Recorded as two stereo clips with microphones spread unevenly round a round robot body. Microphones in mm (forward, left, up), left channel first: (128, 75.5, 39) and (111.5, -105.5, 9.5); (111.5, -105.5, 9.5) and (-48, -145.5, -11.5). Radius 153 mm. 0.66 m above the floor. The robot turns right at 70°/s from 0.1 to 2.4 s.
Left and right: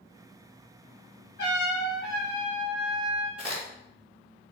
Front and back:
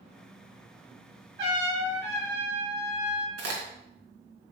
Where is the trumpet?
150° left, 4.5 m; by 3.3 s 140° right, 4.5 m.